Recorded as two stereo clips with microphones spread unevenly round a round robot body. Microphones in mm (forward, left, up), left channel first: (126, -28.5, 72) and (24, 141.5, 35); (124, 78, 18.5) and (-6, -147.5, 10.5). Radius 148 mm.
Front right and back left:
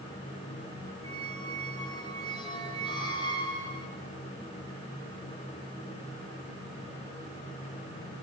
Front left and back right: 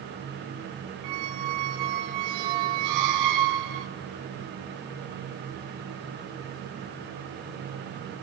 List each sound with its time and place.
1.0 s a squeak: 135° right, 0.8 m